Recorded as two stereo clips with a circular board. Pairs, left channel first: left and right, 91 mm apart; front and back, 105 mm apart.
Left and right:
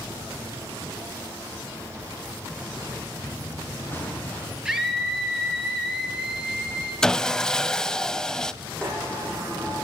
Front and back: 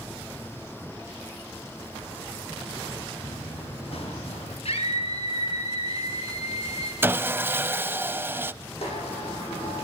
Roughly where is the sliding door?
Ahead.